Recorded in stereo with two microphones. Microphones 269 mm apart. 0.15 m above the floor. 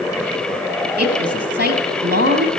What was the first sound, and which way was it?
A woman speaking, 40° right (ahead or behind).